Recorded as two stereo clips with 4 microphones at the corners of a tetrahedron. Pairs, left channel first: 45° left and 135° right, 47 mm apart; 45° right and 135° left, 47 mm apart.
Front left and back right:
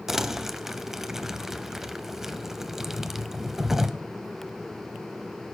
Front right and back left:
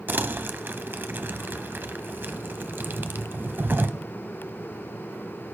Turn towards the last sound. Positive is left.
turn(degrees=145)